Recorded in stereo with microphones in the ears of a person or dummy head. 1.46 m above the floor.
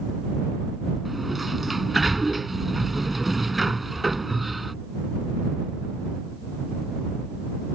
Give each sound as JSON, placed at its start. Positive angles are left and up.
{"t": 1.1, "sound": "a sliding door", "side_deg": 0}